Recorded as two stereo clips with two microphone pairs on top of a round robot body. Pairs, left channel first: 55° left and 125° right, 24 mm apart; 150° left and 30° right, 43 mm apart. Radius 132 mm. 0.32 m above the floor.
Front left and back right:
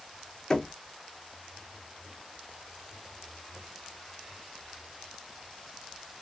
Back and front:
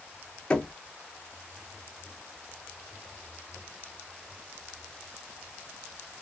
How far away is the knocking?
About 0.7 m.